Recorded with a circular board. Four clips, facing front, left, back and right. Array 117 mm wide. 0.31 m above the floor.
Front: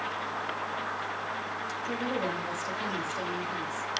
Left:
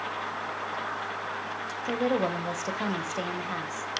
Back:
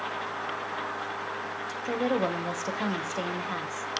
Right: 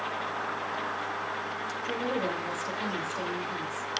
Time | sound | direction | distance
1.9 | a woman speaking | 135° left | 1.2 m